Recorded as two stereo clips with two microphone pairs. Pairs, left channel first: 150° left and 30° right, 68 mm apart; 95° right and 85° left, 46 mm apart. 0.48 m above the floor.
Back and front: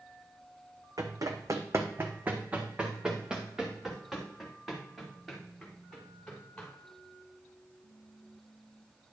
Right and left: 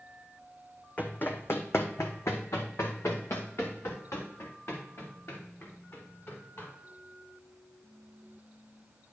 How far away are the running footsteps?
About 1.1 m.